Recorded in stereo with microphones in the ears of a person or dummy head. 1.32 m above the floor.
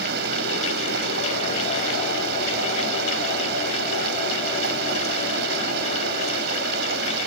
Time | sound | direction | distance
0.0 | running water | 60° right (ahead or behind) | ?